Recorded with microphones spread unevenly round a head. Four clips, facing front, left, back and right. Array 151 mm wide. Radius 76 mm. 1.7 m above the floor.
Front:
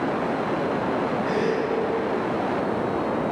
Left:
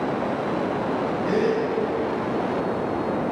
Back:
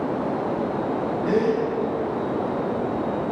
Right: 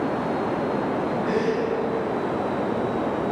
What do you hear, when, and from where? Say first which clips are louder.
1.2 s a gasp: left 3 dB, back 6 dB; 175° left, 2 m